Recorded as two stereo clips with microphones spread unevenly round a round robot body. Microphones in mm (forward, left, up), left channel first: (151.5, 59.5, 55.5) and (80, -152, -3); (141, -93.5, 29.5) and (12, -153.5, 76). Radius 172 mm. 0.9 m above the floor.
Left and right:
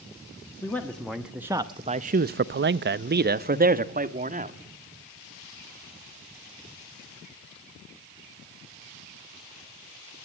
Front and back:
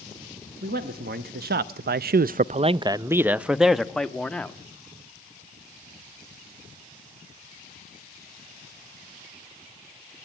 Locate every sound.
0.6 s a man speaking: 160° left, 1.3 m; by 4.5 s 55° right, 1.9 m